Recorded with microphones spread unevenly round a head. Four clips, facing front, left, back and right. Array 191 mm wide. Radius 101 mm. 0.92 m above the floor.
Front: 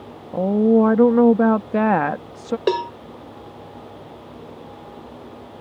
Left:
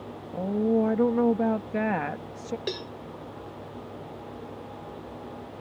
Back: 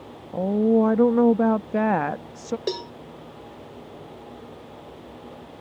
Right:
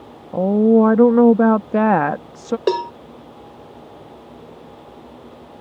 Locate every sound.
0.3 s a woman speaking: 70° right
2.7 s a cowbell: 60° right